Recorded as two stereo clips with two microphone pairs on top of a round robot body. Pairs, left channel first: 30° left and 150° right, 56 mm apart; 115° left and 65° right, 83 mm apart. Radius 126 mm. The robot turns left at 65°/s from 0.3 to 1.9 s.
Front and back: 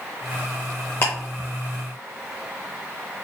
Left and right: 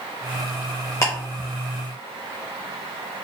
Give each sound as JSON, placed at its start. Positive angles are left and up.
{"t": 1.0, "sound": "ticking", "azimuth_deg": 75, "distance_m": 0.6}